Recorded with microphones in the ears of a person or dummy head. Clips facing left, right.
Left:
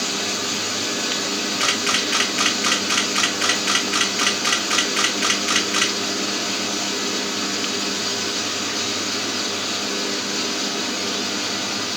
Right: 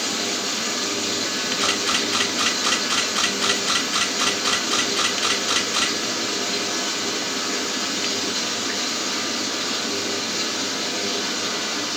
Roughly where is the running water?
Centre.